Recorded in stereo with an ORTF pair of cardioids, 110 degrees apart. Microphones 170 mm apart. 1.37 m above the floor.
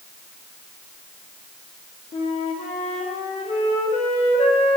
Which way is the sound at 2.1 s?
40° left.